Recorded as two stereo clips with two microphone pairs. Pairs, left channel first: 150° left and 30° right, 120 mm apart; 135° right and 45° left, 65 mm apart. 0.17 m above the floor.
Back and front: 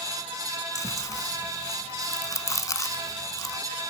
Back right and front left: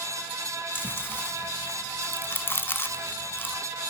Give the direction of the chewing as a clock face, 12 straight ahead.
6 o'clock.